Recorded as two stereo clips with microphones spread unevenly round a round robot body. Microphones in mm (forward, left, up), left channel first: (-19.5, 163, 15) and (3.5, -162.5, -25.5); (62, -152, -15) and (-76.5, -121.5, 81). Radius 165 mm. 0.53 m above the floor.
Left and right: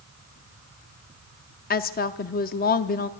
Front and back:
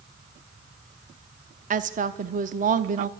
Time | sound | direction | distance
1.7 | a woman speaking | 115° left | 0.7 m